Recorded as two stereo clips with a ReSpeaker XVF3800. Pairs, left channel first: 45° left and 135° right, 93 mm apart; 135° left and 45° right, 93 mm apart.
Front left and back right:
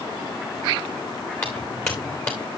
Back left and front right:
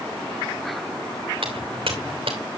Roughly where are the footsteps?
Ahead right.